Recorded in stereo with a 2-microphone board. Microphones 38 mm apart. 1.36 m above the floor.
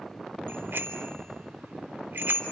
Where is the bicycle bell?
70° right (ahead or behind), 3 m.